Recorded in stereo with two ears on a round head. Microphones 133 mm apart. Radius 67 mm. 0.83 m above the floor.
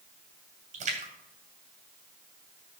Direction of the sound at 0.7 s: 55° right (ahead or behind).